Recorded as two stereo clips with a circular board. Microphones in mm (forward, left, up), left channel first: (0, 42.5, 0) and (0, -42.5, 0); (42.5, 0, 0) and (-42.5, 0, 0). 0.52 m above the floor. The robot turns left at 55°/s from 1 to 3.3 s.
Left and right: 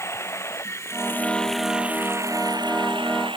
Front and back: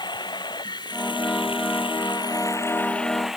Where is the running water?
30° left; by 3.4 s 95° right.